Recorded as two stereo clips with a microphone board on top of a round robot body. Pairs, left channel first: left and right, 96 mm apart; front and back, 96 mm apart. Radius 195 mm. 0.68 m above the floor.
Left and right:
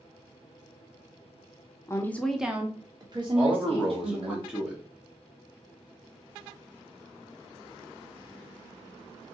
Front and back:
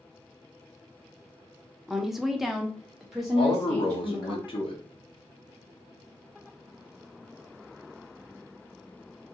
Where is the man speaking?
10° right, 1.3 m.